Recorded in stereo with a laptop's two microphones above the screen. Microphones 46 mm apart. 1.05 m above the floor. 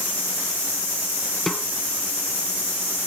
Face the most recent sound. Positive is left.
turn(degrees=5)  # may be behind; listen again after turning